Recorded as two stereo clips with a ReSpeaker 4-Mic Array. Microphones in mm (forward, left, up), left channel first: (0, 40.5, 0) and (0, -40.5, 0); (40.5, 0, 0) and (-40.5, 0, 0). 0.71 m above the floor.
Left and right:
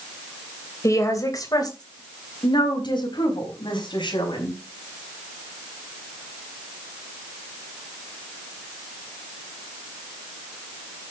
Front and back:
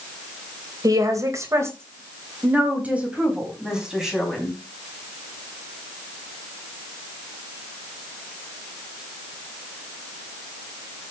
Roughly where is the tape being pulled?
I don't hear tape being pulled.